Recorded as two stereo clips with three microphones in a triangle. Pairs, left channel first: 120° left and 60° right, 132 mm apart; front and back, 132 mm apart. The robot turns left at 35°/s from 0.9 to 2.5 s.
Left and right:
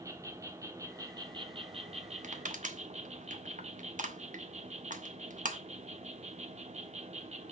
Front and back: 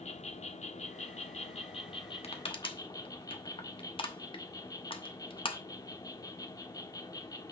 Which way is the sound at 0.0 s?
Straight ahead.